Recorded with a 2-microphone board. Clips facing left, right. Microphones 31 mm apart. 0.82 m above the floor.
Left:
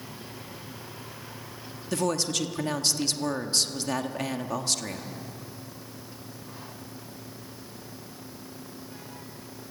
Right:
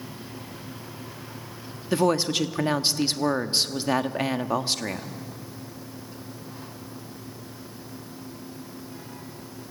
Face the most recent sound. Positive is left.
turn(degrees=-25)  # may be behind; listen again after turning